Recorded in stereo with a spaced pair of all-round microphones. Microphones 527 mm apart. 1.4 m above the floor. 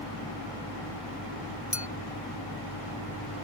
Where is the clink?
80° left.